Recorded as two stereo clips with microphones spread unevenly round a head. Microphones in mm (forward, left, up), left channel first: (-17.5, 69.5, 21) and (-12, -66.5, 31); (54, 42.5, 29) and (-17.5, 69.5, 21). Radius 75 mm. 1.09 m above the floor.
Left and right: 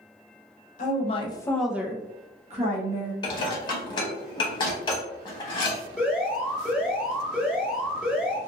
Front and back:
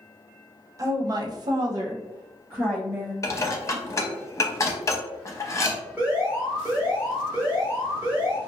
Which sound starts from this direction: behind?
An alarm, at 6.0 s.